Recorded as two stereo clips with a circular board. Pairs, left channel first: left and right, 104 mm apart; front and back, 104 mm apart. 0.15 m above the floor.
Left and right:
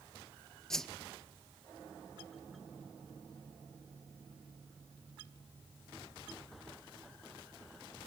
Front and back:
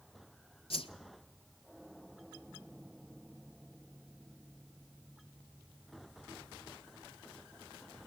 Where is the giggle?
No giggle in this recording.